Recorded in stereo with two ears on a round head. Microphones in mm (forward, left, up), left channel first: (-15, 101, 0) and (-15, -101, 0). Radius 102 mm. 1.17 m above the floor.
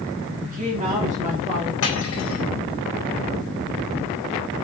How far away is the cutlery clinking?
About 4.5 m.